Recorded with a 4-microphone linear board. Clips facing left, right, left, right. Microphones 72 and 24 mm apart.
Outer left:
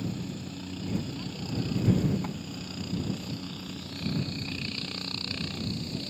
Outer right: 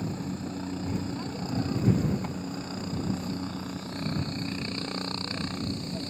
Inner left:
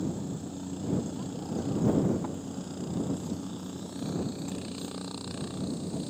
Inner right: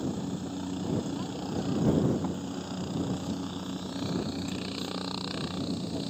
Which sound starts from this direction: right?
A helicopter, at 0.0 s.